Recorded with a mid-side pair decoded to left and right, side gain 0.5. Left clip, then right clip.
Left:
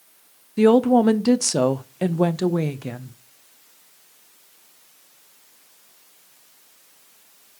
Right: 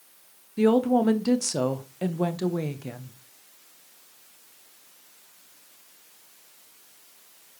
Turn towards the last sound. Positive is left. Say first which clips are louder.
# left 6 dB
turn(degrees=40)